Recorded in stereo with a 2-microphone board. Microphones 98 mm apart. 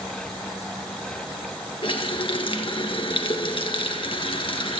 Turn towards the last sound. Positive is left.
turn(degrees=60)  # may be behind; listen again after turning